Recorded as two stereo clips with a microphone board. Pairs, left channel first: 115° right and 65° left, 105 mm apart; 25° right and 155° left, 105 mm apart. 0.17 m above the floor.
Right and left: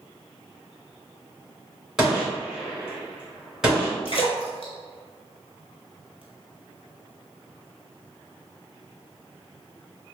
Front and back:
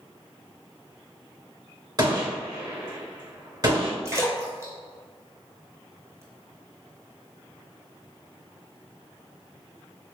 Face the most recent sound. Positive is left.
turn(degrees=-145)